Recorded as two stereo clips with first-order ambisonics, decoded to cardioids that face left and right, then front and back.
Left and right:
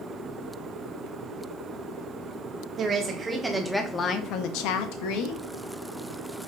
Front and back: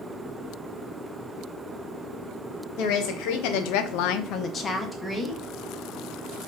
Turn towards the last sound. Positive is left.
turn(degrees=100)